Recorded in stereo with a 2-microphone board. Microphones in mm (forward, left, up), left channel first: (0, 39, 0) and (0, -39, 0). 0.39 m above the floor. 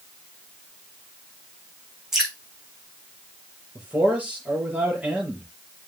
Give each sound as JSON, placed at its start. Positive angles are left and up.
{"t": 2.1, "sound": "dripping", "side_deg": -5, "distance_m": 6.0}
{"t": 3.8, "sound": "a man speaking", "side_deg": -20, "distance_m": 6.5}